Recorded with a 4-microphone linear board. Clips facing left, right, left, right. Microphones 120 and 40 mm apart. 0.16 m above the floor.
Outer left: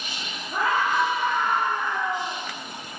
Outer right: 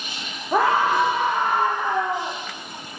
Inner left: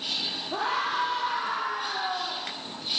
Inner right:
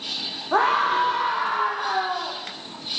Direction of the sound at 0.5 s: 80° right.